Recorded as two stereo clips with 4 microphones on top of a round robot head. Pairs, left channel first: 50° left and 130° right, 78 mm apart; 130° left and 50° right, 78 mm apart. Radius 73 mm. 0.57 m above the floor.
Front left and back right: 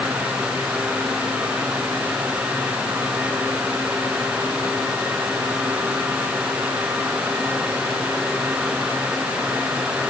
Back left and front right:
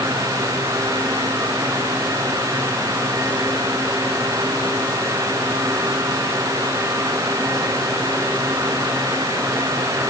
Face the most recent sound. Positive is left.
No sound to turn to.